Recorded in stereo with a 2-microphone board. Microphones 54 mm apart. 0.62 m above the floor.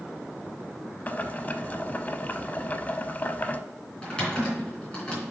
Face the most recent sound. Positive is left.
turn(degrees=20)  # may be behind; listen again after turning